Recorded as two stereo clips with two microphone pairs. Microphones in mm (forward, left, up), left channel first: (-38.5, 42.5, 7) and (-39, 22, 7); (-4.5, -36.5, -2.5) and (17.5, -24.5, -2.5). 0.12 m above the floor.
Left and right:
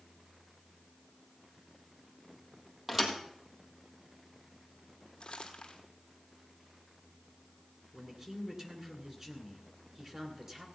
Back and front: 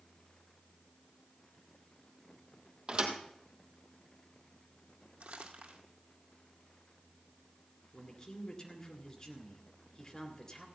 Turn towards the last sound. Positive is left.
turn(degrees=-120)